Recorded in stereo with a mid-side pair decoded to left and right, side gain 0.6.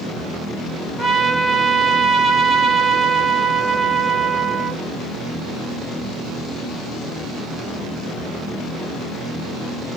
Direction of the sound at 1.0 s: 10° right.